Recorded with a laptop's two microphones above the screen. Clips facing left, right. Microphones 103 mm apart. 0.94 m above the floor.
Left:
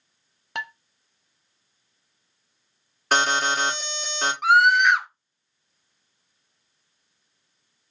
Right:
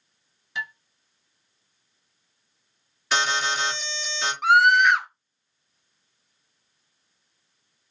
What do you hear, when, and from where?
0.6 s dishes clattering: 70° left (ahead or behind), 0.5 m
3.1 s an alarm: 55° left (ahead or behind), 1.9 m
4.4 s a scream: centre (ahead or behind), 0.6 m